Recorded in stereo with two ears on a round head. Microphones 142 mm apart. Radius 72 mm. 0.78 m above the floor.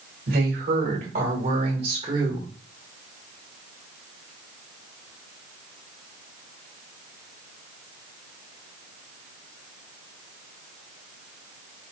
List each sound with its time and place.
0.3 s a woman speaking: 65° right (ahead or behind), 2 m; by 2.5 s 25° right (ahead or behind), 2 m